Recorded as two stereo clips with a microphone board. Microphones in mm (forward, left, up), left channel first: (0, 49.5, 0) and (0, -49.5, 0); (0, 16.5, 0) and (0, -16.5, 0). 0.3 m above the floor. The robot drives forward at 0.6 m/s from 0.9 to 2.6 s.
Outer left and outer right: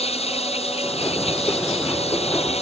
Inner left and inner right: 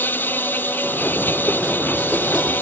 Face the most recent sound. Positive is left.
turn(degrees=80)